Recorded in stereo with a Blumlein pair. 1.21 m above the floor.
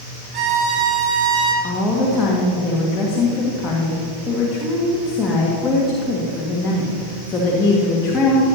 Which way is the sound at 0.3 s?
35° right.